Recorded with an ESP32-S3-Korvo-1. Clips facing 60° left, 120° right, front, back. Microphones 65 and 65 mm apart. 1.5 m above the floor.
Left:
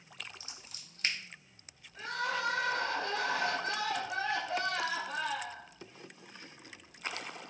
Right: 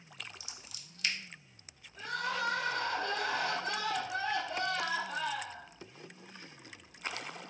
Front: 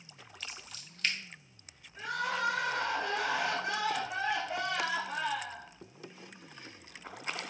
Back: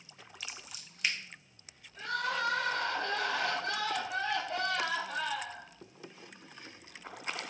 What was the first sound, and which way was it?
Scissors, 105° left.